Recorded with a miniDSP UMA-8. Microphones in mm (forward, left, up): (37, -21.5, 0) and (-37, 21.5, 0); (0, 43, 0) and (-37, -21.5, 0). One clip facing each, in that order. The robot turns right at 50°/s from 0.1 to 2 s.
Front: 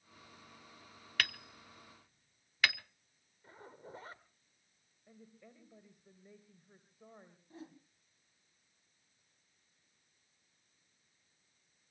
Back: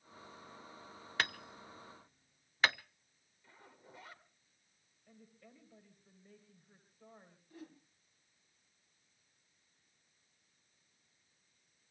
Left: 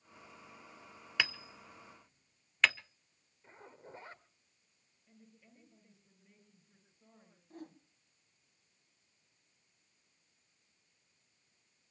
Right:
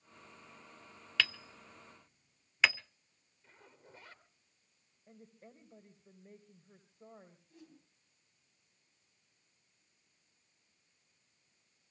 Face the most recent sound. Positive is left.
turn(degrees=30)